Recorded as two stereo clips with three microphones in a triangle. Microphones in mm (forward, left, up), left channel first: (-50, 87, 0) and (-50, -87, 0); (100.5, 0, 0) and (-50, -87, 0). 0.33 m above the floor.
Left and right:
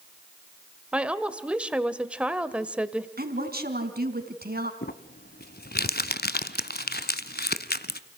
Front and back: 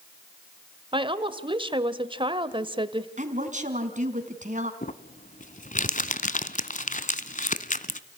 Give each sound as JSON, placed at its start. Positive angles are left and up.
{"t": 0.9, "sound": "a woman speaking", "azimuth_deg": -165, "distance_m": 1.3}
{"t": 3.2, "sound": "a woman speaking", "azimuth_deg": -110, "distance_m": 3.5}
{"t": 4.8, "sound": "crumpling", "azimuth_deg": 70, "distance_m": 0.9}